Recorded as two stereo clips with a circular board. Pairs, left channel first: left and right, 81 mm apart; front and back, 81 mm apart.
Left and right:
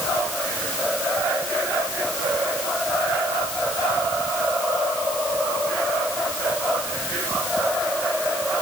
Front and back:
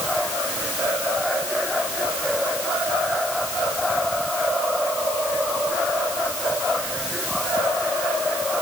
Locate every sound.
Only background noise.